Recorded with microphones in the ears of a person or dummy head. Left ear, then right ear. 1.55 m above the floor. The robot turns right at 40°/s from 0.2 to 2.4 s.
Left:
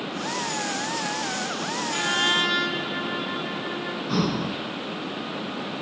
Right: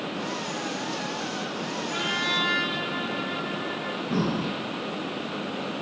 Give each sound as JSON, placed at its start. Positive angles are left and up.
{"t": 1.9, "sound": "a trumpet", "side_deg": 30, "distance_m": 6.5}
{"t": 4.1, "sound": "breathing", "side_deg": 80, "distance_m": 6.0}